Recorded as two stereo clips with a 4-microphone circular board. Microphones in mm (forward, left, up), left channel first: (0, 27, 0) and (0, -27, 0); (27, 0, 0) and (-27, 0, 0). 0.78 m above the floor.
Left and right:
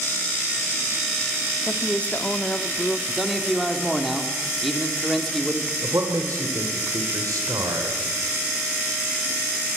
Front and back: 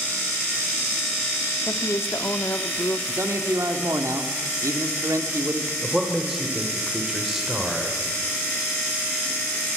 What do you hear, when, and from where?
1.7 s a woman speaking: 30° left, 1.4 m
3.1 s a man speaking: straight behind, 2.5 m
5.8 s a man speaking: 95° right, 3.5 m